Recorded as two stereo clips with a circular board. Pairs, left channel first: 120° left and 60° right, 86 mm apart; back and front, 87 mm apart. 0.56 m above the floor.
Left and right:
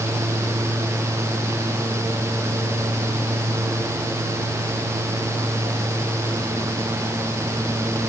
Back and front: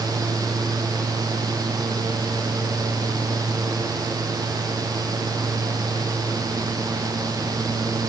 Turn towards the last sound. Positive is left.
No sound to turn to.